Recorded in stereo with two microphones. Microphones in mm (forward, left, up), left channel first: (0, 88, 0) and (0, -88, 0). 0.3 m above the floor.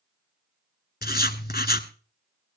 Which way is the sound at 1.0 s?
65° left (ahead or behind).